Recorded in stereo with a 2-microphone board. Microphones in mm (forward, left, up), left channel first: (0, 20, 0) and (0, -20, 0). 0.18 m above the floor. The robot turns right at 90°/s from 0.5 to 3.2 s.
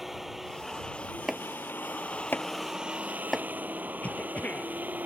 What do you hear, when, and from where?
0.0 s a vehicle: 10° right; by 5.1 s 125° right
1.3 s chopping: 5° right (ahead or behind); by 3.5 s 15° left (ahead or behind)
4.0 s a cough: 45° left (ahead or behind)